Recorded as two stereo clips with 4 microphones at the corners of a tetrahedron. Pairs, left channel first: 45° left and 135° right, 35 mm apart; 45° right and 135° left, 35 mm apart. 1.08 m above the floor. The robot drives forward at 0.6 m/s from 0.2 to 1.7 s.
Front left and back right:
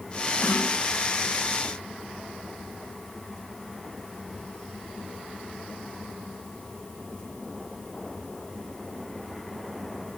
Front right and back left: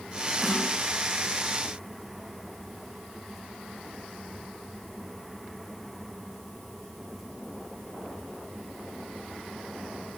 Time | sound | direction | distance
0.4 | a snare drum | 50° left | 7 m